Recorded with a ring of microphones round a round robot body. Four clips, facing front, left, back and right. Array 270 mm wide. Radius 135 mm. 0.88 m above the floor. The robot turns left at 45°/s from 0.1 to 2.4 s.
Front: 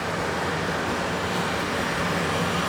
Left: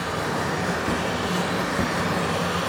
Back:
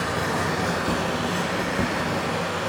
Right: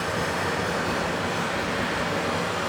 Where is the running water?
175° left, 3 m; by 2.7 s 70° left, 3 m.